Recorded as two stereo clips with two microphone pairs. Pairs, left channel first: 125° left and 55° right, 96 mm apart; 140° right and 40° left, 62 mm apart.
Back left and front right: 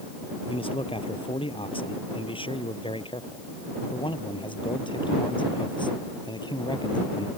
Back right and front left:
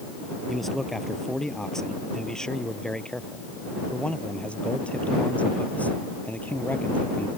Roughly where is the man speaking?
Behind left.